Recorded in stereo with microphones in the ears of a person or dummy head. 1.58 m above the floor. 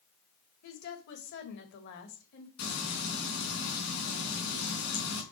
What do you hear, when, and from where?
0.6 s a woman speaking: 60° left (ahead or behind), 1.9 m
2.6 s frying: 60° left (ahead or behind), 3.5 m